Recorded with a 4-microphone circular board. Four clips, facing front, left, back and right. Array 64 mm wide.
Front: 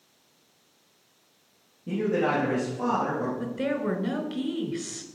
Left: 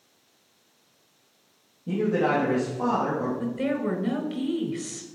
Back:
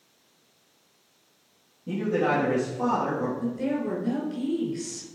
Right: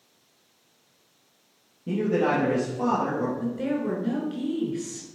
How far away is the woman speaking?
About 1.6 m.